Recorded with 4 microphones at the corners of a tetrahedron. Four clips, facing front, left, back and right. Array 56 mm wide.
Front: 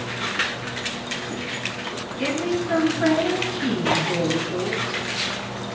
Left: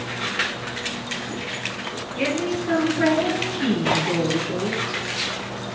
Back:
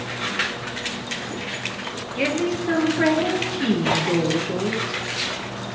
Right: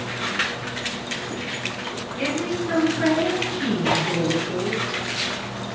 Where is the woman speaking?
160° left, 7.5 m.